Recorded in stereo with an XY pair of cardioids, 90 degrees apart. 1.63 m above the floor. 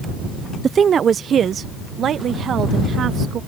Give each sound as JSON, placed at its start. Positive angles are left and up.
{"t": 0.6, "sound": "a woman speaking", "azimuth_deg": -50}